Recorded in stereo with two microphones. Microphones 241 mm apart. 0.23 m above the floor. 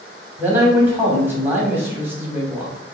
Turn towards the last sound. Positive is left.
turn(degrees=-10)  # may be behind; listen again after turning